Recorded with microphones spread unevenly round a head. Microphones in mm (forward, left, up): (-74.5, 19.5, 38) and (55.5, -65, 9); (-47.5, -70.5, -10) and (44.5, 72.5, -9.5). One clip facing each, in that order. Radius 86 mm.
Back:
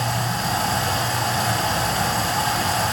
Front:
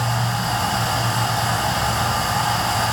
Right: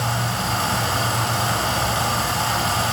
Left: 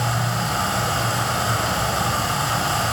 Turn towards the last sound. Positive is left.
turn(degrees=-155)